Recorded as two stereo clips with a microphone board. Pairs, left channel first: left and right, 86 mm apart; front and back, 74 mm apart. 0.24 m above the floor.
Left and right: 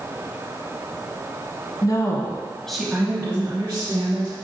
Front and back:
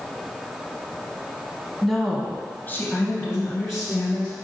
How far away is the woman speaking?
About 1.7 m.